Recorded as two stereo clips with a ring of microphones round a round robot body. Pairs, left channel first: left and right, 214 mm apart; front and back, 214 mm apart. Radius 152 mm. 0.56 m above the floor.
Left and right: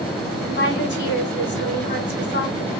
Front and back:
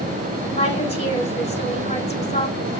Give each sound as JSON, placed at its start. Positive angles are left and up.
{"t": 0.4, "sound": "a woman speaking", "azimuth_deg": 60, "distance_m": 5.0}